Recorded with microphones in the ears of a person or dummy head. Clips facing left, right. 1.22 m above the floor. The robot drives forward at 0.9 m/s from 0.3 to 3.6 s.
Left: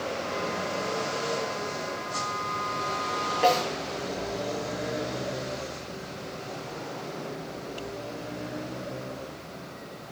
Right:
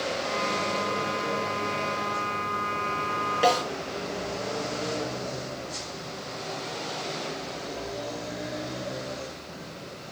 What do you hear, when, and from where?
3.4 s a snare drum: 20° right (ahead or behind), 8.5 m